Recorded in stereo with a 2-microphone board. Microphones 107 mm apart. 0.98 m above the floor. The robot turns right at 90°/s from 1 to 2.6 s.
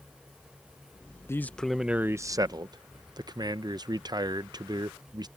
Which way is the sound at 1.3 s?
140° left.